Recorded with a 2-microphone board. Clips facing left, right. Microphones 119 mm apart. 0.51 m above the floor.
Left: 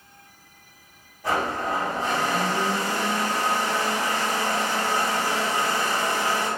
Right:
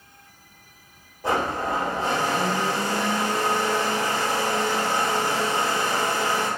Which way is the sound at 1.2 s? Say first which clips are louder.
Right 1 dB; 25° right (ahead or behind).